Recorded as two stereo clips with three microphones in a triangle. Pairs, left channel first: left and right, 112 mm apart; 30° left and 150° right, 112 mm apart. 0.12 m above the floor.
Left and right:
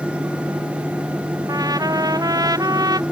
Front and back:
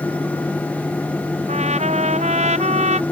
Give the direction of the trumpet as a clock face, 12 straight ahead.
5 o'clock.